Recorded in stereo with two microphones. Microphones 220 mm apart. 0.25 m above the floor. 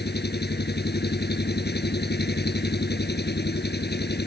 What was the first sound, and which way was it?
An engine running, 50° left (ahead or behind).